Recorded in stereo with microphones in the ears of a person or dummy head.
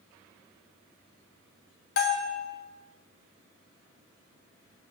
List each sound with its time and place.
2.0 s a bell: 55° left (ahead or behind), 0.7 m